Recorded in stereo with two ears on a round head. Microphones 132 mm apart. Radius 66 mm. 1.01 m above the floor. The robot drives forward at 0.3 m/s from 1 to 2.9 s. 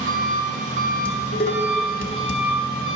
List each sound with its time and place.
0.0 s an engine running: 55° right (ahead or behind), 0.9 m; by 3.0 s 35° right (ahead or behind), 1.3 m
1.1 s dishes clattering: 35° left (ahead or behind), 0.8 m; by 2.4 s 60° left (ahead or behind), 0.5 m